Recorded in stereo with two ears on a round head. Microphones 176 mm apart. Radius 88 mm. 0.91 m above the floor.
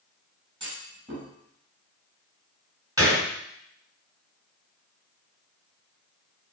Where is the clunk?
25° right (ahead or behind), 4 m.